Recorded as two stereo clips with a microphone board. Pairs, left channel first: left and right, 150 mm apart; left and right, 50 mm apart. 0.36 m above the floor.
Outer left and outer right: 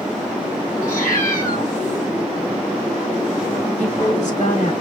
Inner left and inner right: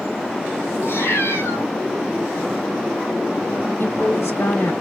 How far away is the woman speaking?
About 2.5 m.